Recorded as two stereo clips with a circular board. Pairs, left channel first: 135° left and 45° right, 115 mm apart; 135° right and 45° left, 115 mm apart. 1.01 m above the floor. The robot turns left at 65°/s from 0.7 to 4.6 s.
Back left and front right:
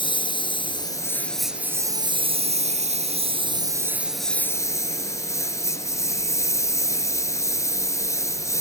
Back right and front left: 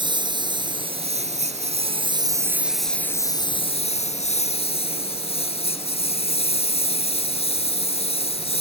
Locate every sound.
0.0 s a lawn mower: 90° left; by 8.6 s 160° right